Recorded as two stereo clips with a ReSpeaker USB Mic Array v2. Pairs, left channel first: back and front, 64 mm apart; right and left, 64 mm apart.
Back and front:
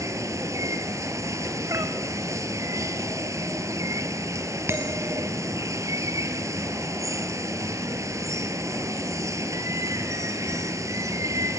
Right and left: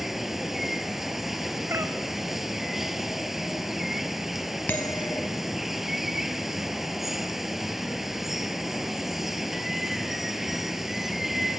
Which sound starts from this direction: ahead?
Running water, at 0.0 s.